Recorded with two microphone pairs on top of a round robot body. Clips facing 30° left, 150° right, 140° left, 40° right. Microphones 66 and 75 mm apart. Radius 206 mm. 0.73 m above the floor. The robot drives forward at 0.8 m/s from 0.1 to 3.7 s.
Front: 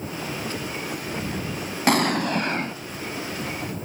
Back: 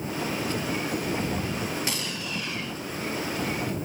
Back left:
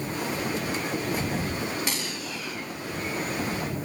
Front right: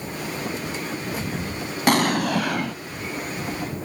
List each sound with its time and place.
1.9 s an explosion: 10° right; by 2.8 s 35° right